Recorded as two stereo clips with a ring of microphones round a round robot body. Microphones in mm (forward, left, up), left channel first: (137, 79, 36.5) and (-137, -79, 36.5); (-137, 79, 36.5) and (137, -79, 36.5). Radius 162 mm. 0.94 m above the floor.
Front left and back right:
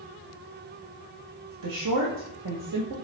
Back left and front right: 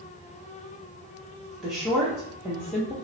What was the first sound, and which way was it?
A woman speaking, 120° right.